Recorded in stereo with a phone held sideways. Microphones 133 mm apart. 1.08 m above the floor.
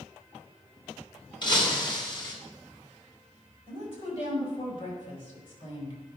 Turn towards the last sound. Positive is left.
turn(degrees=50)  # may be behind; listen again after turning